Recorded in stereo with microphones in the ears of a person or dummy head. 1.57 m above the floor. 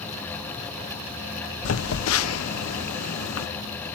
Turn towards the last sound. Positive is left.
turn(degrees=85)